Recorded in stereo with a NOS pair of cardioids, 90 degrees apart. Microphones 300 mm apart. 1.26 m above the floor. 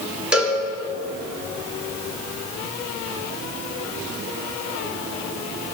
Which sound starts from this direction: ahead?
A cowbell, at 0.3 s.